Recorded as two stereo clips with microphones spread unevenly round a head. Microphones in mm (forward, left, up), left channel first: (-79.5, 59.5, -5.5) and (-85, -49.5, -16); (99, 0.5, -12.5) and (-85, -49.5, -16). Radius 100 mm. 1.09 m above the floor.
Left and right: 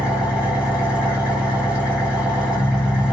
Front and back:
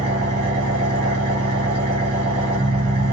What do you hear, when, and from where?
0.0 s an engine running: 175° right, 1.7 m